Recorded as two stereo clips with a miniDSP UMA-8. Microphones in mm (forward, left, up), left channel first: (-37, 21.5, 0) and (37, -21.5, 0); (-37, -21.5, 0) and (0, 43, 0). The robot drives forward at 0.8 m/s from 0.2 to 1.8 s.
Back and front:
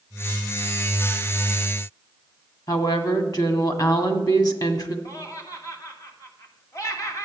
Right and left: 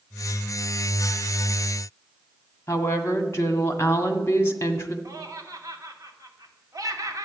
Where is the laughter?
100° left, 2.5 m.